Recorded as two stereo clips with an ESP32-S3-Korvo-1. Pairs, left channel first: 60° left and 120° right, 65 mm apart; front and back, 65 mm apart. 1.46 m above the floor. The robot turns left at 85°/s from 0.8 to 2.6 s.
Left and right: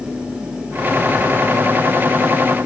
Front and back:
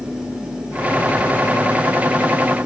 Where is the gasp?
No gasp in this recording.